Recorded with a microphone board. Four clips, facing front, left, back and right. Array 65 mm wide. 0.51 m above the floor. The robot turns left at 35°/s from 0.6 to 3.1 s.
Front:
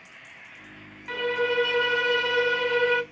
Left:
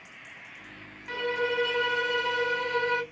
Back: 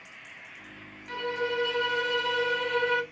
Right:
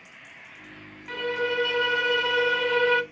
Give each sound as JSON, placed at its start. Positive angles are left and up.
{"t": 1.1, "sound": "a violin", "azimuth_deg": 5, "distance_m": 0.5}